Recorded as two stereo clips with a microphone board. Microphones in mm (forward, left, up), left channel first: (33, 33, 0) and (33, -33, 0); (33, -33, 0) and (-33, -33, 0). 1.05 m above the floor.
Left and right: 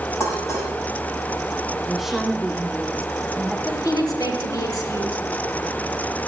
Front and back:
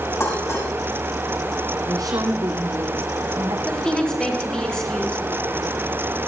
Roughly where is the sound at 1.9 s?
Behind.